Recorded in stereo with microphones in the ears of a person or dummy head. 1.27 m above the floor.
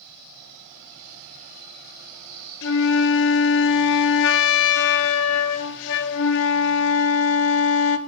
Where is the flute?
65° left (ahead or behind), 0.8 m.